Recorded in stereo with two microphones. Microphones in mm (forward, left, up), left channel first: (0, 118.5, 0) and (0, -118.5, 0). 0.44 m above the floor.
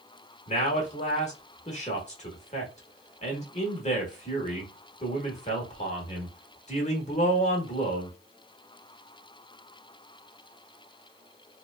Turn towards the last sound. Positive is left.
turn(degrees=30)  # may be behind; listen again after turning